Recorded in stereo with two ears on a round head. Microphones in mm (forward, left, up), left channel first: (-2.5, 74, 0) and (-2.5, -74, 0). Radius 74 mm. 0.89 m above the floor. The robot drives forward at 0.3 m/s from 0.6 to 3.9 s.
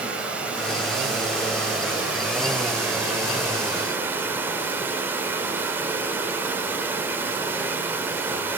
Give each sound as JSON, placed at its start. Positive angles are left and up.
{"t": 0.0, "sound": "running water", "side_deg": -10, "distance_m": 2.5}